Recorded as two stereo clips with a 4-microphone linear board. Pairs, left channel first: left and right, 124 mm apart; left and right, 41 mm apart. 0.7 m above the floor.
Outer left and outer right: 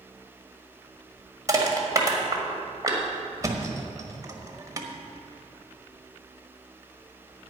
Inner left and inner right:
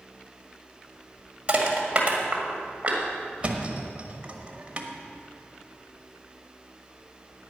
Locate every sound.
1.5 s crushing: 30° right (ahead or behind), 1.7 m
3.4 s a thud: 30° right (ahead or behind), 1.1 m